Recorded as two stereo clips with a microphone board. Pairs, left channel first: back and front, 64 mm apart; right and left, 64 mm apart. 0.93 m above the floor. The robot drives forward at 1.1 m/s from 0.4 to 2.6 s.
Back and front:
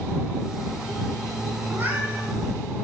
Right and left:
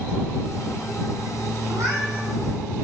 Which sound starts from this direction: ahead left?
A cat meowing, at 1.7 s.